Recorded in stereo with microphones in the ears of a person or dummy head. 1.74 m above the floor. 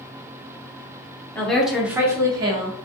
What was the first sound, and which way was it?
A woman speaking, 15° left (ahead or behind).